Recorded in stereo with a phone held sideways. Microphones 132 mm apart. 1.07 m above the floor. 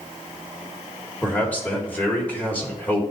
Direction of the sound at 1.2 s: 10° left (ahead or behind).